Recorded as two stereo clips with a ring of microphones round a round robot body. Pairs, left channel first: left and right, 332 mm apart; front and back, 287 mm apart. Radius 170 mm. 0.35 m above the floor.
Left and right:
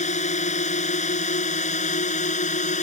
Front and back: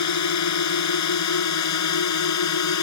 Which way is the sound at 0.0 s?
20° left.